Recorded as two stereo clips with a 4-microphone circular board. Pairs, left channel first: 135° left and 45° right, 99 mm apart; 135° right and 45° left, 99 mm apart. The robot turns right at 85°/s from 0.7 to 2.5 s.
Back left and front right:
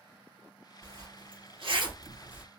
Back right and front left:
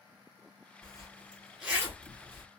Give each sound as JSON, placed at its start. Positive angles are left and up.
{"t": 0.8, "sound": "a zipper", "azimuth_deg": -105, "distance_m": 2.5}